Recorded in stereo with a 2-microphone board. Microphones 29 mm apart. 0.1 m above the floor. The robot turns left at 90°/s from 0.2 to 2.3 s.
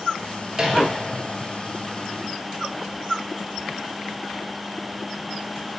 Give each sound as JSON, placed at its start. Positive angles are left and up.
{"t": 0.5, "sound": "a microwave", "side_deg": -25, "distance_m": 1.4}